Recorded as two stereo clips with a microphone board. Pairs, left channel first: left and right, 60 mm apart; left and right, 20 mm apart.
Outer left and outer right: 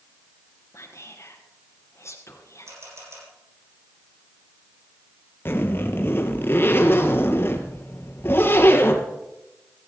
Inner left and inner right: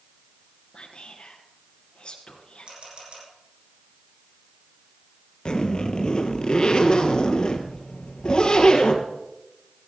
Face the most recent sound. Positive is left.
turn(degrees=40)  # may be behind; listen again after turning